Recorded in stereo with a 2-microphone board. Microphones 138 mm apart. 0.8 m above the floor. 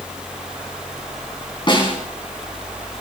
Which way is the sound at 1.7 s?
35° left (ahead or behind).